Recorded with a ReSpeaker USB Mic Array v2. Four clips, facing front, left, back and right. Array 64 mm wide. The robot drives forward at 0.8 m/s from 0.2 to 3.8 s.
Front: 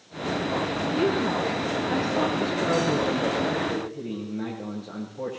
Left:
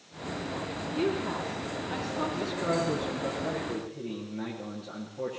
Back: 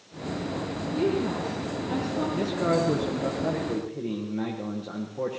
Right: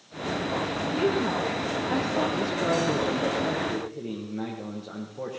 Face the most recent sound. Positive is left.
turn(degrees=-160)